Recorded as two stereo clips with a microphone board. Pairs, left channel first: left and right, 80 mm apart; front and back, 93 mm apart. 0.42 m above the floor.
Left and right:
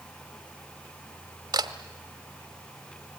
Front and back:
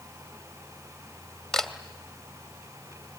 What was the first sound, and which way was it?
A camera shutter, 85° right.